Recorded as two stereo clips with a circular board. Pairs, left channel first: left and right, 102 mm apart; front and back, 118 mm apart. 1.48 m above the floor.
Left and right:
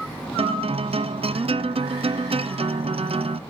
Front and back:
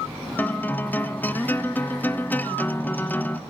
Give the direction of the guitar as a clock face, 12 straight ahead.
2 o'clock.